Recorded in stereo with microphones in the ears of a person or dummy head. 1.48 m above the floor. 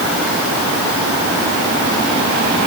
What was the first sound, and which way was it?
Only background noise.